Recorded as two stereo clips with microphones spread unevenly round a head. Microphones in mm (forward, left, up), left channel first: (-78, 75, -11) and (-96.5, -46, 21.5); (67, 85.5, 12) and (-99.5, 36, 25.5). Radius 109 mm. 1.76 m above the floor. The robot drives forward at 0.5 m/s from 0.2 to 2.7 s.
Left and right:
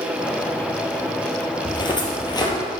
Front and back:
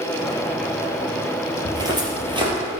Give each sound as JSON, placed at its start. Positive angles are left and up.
{"t": 1.6, "sound": "footsteps", "azimuth_deg": 135, "distance_m": 3.0}